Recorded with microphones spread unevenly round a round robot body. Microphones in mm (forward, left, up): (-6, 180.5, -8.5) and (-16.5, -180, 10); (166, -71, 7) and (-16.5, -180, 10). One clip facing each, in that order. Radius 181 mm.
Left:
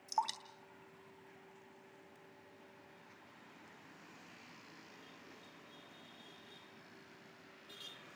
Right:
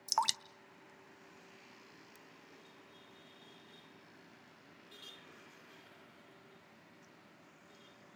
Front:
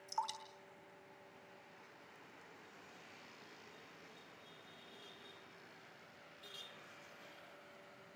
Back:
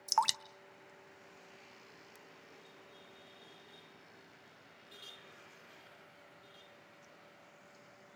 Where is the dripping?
145° right, 0.6 m.